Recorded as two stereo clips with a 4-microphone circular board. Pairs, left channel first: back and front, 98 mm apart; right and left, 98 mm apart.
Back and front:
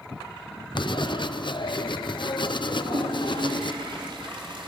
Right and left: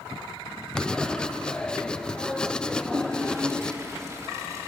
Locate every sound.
0.8 s writing: 170° right, 0.7 m
2.7 s a toilet flushing: 30° left, 3.5 m